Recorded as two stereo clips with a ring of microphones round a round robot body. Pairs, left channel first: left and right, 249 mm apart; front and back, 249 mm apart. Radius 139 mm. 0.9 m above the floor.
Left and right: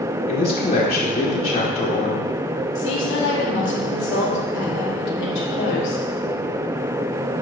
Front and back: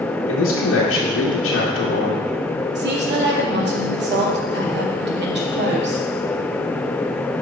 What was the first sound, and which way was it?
A man speaking, 25° left.